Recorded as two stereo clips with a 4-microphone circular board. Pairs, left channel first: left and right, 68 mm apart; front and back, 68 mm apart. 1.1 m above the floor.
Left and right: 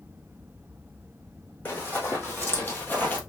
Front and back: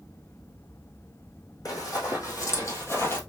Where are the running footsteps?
30° left, 2.5 m; by 3.2 s 35° left, 1.4 m.